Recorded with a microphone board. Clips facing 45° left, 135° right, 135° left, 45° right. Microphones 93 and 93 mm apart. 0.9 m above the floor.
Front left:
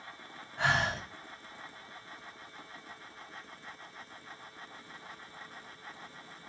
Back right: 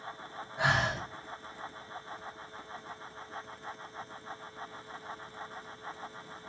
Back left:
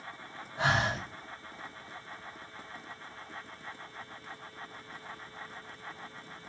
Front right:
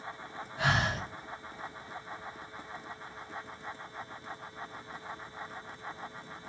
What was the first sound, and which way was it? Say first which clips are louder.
Breathing: back right 1 dB, back left 1 dB; 160° left.